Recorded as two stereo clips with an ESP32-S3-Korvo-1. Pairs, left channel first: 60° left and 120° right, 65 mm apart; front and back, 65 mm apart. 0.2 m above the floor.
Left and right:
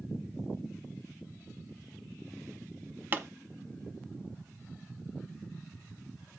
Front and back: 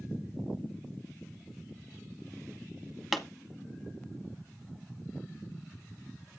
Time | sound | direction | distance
3.1 | a pop | 90° right | 0.7 m